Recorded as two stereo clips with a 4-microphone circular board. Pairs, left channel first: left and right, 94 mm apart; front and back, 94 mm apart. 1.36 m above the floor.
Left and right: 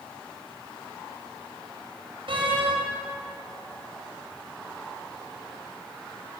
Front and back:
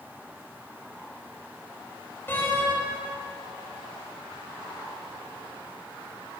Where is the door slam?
65° right, 5 m.